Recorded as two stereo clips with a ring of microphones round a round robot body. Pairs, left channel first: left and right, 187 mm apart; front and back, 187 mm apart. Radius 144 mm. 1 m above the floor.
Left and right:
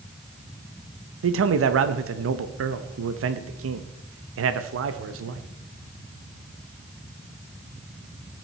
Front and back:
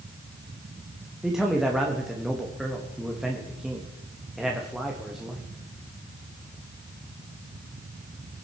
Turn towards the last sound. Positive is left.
turn(degrees=-90)